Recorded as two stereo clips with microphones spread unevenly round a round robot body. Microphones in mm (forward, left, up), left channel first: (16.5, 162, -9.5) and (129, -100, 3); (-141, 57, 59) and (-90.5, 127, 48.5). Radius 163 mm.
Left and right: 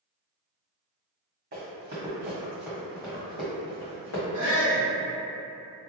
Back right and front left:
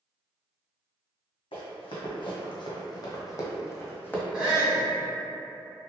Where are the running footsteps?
125° right, 1.3 m; by 4.2 s 165° left, 1.3 m.